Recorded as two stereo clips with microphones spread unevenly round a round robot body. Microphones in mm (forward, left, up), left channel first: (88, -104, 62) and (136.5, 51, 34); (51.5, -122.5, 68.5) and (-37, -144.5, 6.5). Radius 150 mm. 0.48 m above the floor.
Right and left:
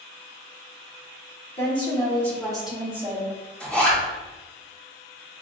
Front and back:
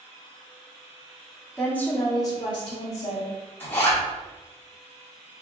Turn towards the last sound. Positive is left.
turn(degrees=160)